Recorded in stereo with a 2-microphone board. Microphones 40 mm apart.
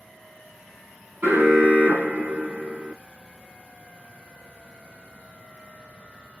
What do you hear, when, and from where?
1.2 s an alarm: 65° right (ahead or behind), 2.5 m